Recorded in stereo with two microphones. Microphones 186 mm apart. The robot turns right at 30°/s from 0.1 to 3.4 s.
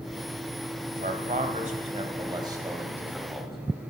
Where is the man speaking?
55° right (ahead or behind), 1.6 m; by 3.9 s centre (ahead or behind), 1.6 m.